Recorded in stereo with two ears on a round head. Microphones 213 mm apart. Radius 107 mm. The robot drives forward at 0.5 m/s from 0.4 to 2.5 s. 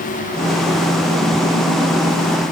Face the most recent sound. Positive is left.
No sound to turn to.